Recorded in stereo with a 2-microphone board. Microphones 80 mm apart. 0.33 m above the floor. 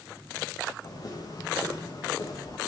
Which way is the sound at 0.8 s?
50° left (ahead or behind).